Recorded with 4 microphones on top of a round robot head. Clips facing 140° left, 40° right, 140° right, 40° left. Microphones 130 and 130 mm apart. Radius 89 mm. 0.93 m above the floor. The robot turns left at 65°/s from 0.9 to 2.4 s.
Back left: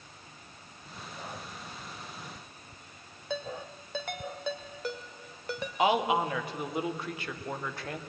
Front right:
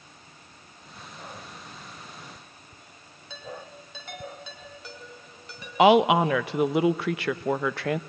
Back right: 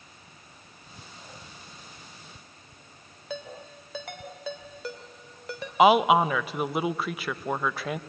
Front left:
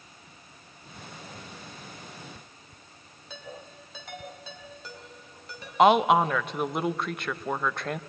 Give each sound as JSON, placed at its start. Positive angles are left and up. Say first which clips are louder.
{"t": 3.3, "sound": "a ringtone", "louder": "back left 4 dB, back right 5 dB", "azimuth_deg": -175, "distance_m": 2.0}
{"t": 5.8, "sound": "a woman speaking", "louder": "front right 9 dB, back right 1 dB", "azimuth_deg": -50, "distance_m": 0.6}